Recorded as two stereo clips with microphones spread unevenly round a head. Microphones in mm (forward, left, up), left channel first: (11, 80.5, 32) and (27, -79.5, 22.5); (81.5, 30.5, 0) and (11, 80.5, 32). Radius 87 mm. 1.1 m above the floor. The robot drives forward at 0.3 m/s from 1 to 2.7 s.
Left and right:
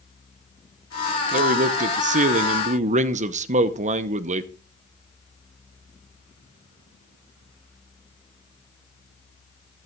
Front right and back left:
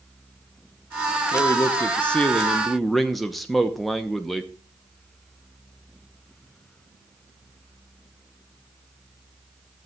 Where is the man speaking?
70° right, 0.8 m; by 4.5 s 105° right, 0.8 m.